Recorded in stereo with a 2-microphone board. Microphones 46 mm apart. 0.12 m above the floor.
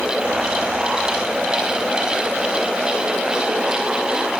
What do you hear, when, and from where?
Only background noise.